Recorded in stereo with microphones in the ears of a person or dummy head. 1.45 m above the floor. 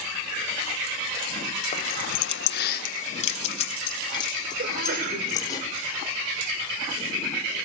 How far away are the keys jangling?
About 1.0 m.